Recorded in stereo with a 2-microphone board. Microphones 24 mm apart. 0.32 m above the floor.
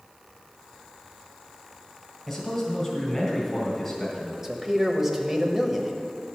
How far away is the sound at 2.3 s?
About 1.7 m.